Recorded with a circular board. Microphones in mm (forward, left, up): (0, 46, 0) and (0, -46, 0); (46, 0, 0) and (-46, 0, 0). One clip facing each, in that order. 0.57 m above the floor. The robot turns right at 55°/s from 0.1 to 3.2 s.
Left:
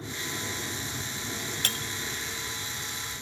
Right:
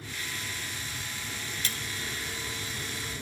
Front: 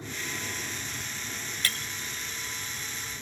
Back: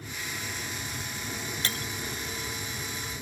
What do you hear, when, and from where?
0.0 s an aircraft: 50° left; by 3.2 s 130° right
1.6 s breaking glass: 115° left; by 1.9 s 130° left